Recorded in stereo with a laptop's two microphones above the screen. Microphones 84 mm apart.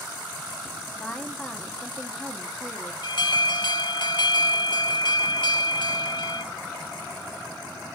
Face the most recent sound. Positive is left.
turn(degrees=65)  # may be behind; listen again after turning